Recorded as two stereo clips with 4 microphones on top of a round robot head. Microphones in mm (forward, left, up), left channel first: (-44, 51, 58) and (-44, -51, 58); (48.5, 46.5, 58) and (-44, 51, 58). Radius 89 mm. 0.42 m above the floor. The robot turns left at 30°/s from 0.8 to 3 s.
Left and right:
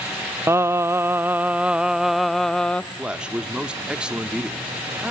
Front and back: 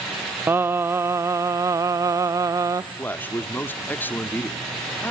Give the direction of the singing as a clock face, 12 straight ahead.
5 o'clock.